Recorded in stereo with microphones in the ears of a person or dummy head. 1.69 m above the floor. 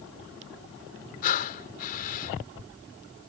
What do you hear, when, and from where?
1.2 s breathing: 45° left (ahead or behind)